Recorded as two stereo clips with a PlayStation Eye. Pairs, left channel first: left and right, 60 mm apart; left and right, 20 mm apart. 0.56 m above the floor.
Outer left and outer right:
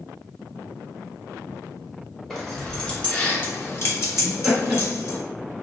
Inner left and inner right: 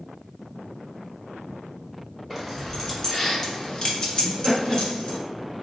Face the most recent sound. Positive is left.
turn(degrees=-5)  # may be behind; listen again after turning